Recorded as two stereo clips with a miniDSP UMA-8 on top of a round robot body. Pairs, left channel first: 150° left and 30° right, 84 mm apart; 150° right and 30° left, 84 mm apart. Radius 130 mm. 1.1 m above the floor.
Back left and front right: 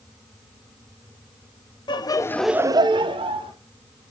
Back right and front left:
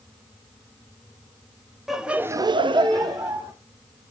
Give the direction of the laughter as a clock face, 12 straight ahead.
8 o'clock.